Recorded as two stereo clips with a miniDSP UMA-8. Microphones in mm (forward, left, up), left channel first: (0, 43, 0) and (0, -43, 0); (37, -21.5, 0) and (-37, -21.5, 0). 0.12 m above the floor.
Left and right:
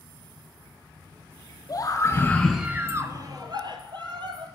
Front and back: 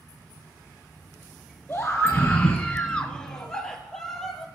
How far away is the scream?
About 1.5 m.